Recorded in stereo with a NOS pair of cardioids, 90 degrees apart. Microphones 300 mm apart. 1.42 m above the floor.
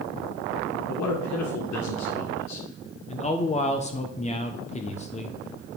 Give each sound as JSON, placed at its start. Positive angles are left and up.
{"t": 0.9, "sound": "a man speaking", "azimuth_deg": 70, "distance_m": 1.7}
{"t": 3.1, "sound": "a man speaking", "azimuth_deg": 25, "distance_m": 1.2}